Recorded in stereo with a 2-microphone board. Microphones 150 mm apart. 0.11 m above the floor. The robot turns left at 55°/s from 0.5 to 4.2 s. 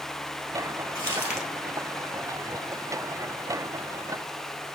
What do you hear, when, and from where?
0.9 s crumpling: 25° right (ahead or behind), 1.3 m; by 1.5 s centre (ahead or behind), 1.3 m